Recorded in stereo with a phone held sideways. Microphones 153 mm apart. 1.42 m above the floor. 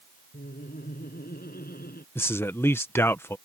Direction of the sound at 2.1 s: 15° left (ahead or behind).